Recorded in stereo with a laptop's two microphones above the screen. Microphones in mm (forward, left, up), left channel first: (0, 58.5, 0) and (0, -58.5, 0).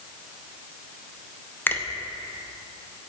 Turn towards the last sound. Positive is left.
turn(degrees=15)  # may be behind; listen again after turning